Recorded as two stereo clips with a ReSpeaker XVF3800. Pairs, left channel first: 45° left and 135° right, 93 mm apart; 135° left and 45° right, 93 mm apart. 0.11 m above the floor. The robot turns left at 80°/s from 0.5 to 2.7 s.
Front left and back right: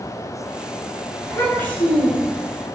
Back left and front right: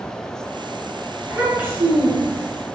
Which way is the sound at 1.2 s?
30° left.